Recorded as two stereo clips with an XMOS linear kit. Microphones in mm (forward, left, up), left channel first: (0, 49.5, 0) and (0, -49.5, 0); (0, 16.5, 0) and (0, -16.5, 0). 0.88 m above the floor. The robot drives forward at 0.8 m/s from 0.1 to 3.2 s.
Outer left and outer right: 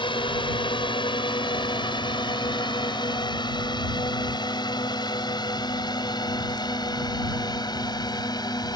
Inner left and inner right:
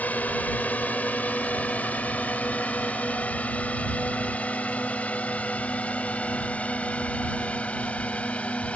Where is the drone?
60° left (ahead or behind); by 8.8 s 45° left (ahead or behind).